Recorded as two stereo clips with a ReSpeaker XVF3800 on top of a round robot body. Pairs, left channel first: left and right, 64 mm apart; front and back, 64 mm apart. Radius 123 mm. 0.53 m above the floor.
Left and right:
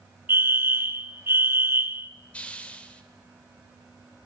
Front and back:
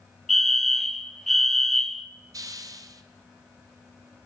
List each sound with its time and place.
0.3 s a fire alarm: 85° right, 2 m
2.3 s a hiss: 160° left, 2.5 m